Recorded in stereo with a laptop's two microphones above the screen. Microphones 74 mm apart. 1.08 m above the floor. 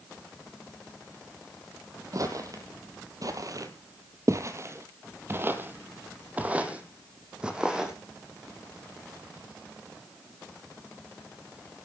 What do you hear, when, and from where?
2.1 s footsteps: 50° right (ahead or behind), 1.9 m; by 8.0 s 10° right (ahead or behind), 3 m